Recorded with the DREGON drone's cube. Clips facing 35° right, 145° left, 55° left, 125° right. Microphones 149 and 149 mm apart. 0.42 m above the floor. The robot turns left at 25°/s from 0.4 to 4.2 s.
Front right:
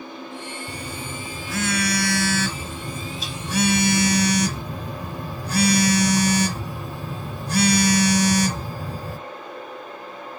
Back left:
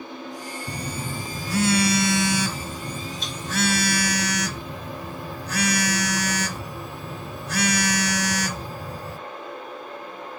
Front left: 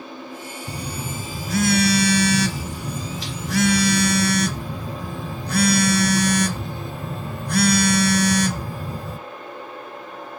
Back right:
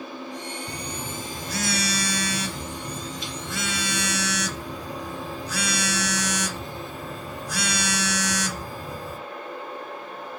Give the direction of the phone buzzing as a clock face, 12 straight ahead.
8 o'clock.